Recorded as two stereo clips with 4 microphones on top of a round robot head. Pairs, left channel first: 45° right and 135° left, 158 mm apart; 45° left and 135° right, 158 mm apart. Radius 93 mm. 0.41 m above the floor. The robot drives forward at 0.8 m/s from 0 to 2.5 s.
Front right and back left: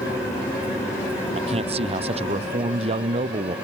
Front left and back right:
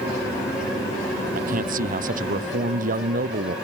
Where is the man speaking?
170° right.